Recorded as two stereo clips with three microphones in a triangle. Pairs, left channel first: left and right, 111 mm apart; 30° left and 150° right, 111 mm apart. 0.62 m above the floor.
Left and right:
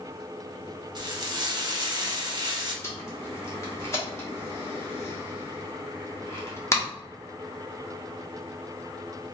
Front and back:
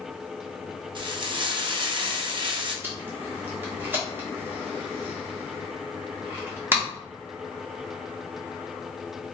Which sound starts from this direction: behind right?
Frying, at 0.9 s.